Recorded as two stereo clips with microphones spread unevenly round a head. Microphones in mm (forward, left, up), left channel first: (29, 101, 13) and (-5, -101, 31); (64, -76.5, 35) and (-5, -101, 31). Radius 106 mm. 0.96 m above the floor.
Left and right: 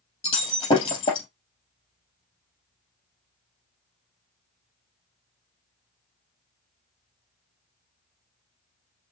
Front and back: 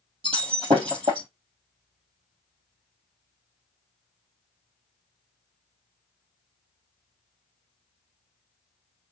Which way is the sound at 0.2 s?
150° left.